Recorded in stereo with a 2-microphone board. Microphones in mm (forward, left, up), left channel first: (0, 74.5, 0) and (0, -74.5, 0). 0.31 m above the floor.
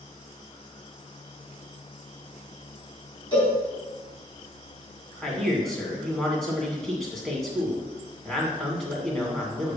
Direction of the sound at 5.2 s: Centre (ahead or behind).